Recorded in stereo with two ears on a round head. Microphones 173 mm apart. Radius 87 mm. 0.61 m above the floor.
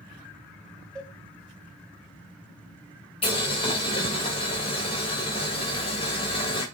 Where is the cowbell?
5° left (ahead or behind), 3.5 m.